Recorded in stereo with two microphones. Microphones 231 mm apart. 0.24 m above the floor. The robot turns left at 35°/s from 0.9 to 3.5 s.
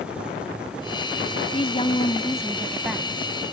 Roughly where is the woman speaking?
Ahead left.